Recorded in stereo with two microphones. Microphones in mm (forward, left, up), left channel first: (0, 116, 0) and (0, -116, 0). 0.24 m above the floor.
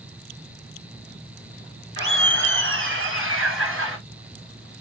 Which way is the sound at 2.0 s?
55° right (ahead or behind).